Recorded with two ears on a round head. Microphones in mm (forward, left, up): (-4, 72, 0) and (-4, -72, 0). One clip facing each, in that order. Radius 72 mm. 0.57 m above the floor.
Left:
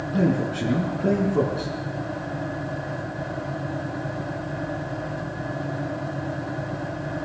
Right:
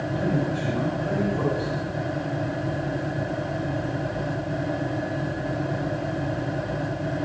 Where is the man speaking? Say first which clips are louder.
Left 4 dB; 75° left (ahead or behind), 6 m.